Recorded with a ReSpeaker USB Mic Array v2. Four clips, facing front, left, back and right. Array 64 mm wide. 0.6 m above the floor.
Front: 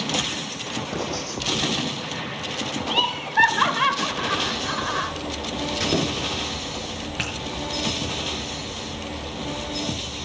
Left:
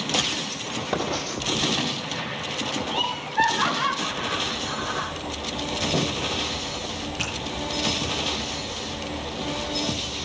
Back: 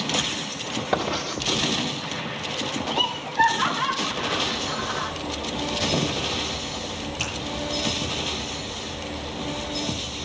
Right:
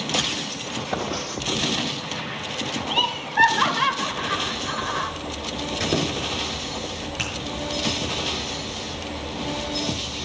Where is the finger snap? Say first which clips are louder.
Right 1 dB, front 4 dB; 15° right, 6.5 m.